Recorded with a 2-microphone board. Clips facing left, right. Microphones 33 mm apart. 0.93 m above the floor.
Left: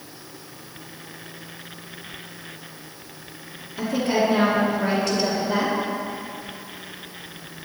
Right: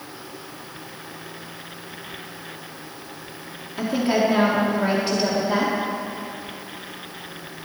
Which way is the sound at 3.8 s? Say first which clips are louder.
Right 1 dB; 20° right (ahead or behind).